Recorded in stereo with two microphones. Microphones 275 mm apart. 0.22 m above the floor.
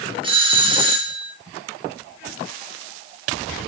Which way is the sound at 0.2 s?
20° right (ahead or behind).